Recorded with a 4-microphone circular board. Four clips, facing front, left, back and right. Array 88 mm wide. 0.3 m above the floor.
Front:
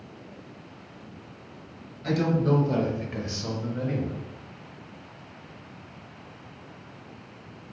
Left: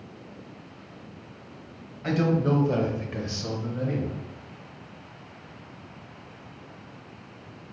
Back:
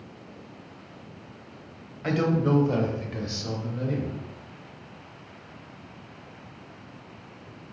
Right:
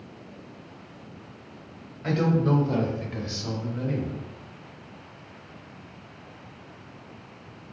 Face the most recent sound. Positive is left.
turn(degrees=20)